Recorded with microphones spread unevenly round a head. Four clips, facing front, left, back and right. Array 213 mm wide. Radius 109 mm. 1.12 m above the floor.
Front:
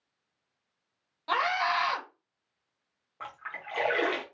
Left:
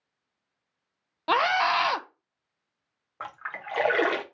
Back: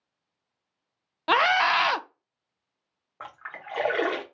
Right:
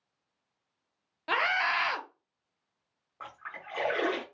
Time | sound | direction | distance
1.3 | a scream | 145° left | 0.6 m
3.2 | a splash | 105° left | 0.8 m